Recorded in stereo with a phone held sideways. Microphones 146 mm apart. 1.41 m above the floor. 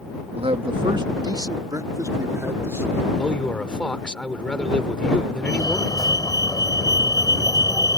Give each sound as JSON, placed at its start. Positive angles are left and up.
{"t": 0.3, "sound": "a man speaking", "side_deg": -45}
{"t": 3.2, "sound": "a man speaking", "side_deg": 5}
{"t": 5.5, "sound": "a fire alarm", "side_deg": 25}